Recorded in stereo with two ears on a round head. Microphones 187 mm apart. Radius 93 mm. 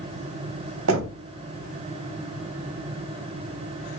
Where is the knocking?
70° right (ahead or behind), 0.9 m.